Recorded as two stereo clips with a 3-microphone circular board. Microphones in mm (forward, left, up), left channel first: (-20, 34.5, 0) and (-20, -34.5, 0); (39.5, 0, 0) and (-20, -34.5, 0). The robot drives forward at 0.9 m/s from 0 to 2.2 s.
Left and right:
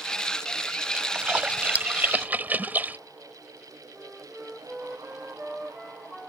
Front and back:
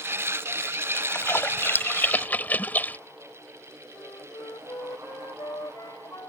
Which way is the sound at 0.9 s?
20° right.